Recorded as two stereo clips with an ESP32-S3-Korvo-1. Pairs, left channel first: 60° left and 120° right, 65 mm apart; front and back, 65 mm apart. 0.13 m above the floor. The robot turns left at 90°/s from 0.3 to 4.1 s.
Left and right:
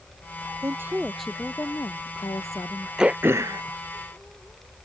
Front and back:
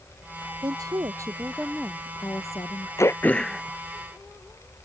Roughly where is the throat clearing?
Ahead right.